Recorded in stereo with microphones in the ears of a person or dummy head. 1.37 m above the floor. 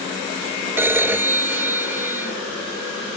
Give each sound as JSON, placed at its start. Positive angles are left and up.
{"t": 0.8, "sound": "a phone ringing", "side_deg": -10}